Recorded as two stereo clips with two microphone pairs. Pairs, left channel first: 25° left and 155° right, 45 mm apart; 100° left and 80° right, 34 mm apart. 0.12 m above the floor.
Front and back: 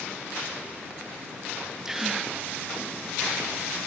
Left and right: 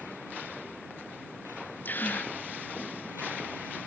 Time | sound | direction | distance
1.9 | a gasp | 125° left | ?